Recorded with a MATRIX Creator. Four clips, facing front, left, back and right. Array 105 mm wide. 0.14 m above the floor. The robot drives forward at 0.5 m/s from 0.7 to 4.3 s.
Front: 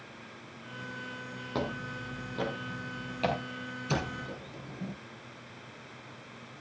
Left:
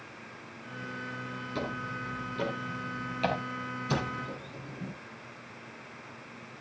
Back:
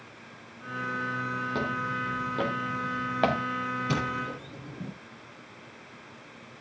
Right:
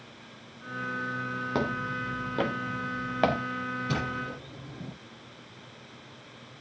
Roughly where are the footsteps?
Right.